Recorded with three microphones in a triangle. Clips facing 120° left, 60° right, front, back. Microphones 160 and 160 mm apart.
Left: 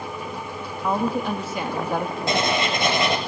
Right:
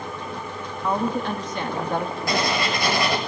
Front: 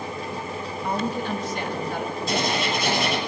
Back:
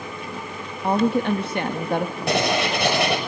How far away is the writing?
About 6.5 m.